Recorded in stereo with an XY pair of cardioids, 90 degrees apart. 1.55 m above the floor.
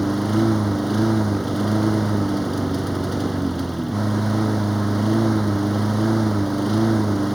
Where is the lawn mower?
5° right.